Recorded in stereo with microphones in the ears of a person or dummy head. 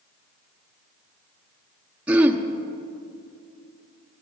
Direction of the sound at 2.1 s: 5° right (ahead or behind).